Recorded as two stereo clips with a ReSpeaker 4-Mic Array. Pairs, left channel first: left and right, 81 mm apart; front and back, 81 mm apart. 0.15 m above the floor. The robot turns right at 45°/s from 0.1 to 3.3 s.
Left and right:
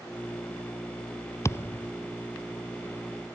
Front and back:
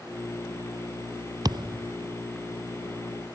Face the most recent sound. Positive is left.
turn(degrees=-130)